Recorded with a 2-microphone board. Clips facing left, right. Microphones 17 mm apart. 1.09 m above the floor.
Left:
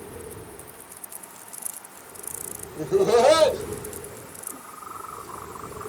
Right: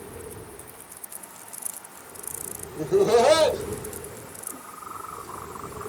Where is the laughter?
40° left (ahead or behind), 0.7 m.